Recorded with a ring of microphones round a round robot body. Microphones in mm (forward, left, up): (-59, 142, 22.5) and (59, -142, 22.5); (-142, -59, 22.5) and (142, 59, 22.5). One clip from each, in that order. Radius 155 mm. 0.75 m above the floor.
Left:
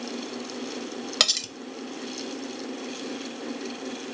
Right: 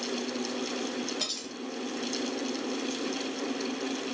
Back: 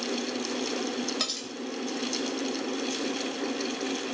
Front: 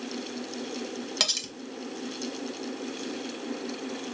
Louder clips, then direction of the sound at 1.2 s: Left 11 dB, front 5 dB; 95° left.